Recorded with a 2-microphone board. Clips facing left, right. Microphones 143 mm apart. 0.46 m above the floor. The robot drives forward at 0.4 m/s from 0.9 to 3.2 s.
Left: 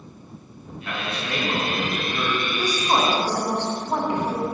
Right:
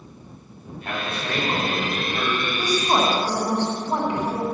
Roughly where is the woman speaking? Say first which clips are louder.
Right 1 dB; centre.